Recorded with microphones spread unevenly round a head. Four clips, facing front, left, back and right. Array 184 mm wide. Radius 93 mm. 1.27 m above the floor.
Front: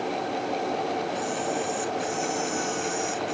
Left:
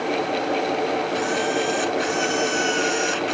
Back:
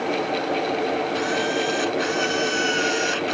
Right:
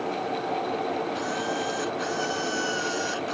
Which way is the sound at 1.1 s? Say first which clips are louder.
Left 6 dB, back 5 dB; 140° left.